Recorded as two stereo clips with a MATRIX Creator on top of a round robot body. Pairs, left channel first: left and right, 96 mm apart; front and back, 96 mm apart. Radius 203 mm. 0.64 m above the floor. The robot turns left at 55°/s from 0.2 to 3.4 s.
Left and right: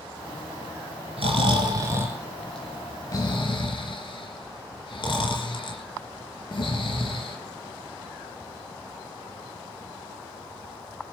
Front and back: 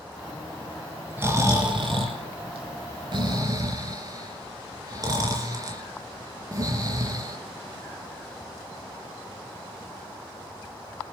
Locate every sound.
1.2 s snoring: 110° right, 3.5 m; by 7.4 s 130° left, 3.5 m